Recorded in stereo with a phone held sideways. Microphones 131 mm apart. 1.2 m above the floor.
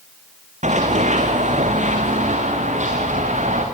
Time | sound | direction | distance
0.6 | running footsteps | 65° right (ahead or behind) | 4 m